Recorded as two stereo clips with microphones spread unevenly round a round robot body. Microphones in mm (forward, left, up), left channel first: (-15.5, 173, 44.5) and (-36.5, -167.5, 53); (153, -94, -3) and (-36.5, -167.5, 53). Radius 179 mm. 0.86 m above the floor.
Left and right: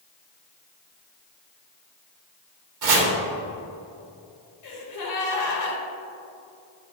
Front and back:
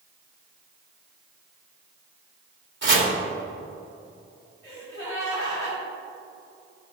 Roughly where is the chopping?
Behind right.